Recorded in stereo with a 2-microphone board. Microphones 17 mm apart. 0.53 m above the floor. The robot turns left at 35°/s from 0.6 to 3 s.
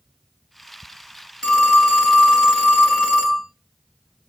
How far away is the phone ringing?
About 2 m.